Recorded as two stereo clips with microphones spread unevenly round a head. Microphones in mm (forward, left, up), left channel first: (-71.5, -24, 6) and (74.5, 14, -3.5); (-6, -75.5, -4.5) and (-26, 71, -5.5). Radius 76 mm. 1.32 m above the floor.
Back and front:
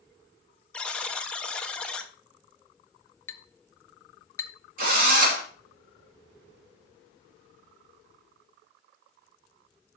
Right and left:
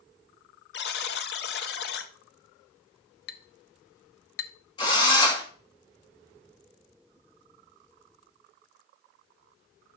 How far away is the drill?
About 2.5 m.